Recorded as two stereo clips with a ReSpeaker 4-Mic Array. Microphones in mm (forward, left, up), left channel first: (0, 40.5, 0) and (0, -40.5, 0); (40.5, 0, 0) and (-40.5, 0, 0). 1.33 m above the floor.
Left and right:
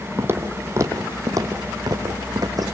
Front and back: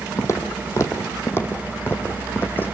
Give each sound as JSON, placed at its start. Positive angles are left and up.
{"t": 0.2, "sound": "footsteps", "azimuth_deg": -40, "distance_m": 2.0}